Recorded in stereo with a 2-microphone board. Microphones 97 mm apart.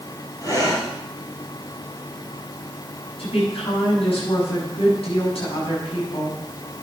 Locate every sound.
0.4 s breathing: 40° left (ahead or behind), 4.5 m
3.2 s a woman speaking: 80° left, 6 m